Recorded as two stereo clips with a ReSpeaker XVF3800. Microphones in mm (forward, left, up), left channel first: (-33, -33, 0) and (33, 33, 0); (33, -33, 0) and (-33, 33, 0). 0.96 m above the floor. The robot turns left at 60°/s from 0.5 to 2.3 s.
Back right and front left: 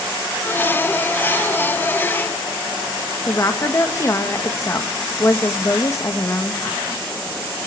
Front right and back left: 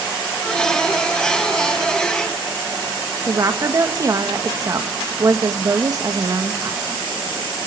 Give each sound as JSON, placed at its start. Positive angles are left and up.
{"t": 3.3, "sound": "a woman speaking", "azimuth_deg": 175, "distance_m": 1.4}